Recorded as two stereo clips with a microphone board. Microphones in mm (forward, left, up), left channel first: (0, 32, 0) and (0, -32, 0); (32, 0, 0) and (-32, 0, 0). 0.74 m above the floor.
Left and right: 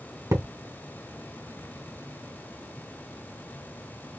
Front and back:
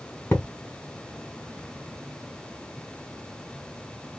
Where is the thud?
60° right, 1.9 m.